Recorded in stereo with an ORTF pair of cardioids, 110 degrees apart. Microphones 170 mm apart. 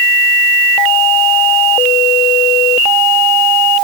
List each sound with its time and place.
Only background noise.